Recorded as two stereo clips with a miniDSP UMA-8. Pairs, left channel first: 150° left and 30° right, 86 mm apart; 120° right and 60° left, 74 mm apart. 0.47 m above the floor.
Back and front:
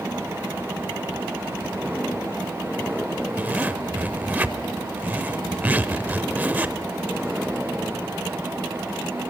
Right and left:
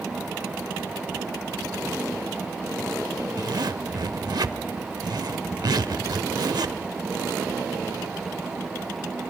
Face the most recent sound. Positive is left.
turn(degrees=40)